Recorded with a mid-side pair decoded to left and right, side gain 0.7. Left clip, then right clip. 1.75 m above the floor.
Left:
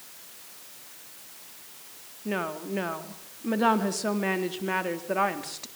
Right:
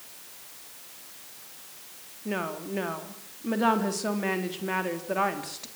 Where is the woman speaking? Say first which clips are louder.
Left 1 dB; 10° left, 3.5 m.